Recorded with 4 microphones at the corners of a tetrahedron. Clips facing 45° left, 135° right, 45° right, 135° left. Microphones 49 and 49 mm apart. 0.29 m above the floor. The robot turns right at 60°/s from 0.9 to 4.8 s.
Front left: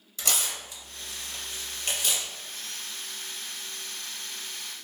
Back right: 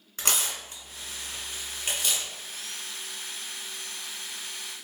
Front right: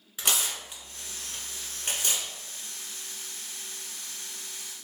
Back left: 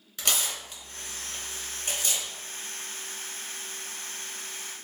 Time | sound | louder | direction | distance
0.2 | tearing paper | back right 1 dB, even | 115° right | 1.4 m